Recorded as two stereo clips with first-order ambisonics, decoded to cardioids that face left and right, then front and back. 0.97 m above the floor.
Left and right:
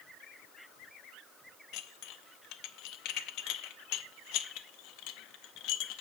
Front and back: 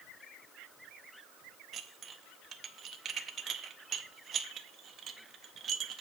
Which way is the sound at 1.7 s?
120° left.